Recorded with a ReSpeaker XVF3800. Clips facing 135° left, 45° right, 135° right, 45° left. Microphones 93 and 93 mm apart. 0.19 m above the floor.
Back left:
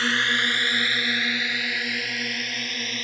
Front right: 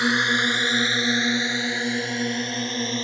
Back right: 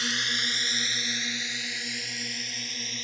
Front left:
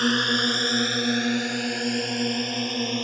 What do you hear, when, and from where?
0.0 s a drone: 25° left; by 3.0 s 15° left